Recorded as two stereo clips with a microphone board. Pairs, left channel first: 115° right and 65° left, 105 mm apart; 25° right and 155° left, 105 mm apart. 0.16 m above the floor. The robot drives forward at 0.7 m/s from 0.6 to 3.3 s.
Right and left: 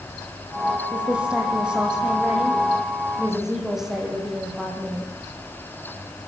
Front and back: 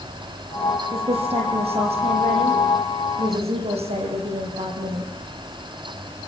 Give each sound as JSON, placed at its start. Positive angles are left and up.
{"t": 0.9, "sound": "a woman speaking", "azimuth_deg": 145, "distance_m": 5.5}